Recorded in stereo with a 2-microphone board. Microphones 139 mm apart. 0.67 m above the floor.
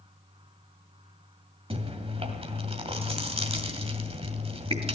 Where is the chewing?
45° right (ahead or behind), 2 m.